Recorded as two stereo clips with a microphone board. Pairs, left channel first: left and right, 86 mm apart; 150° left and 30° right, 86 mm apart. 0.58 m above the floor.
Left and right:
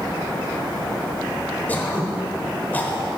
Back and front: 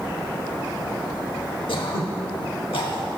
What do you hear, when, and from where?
1.7 s throat clearing: 160° left, 0.9 m